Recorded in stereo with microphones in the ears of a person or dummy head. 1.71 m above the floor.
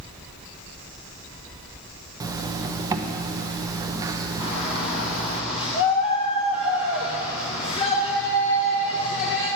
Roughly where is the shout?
Left.